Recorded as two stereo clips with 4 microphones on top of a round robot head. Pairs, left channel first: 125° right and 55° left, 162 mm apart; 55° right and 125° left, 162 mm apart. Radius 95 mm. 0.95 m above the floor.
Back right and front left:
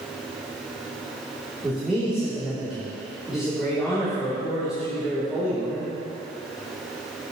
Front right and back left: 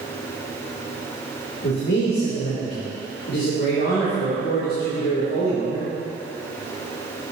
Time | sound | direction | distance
1.6 | a man speaking | 30° right | 2.5 m